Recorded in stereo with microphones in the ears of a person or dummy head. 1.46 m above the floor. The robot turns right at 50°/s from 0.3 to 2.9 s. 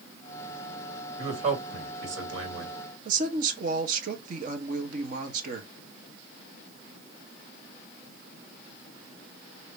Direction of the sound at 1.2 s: 150° right.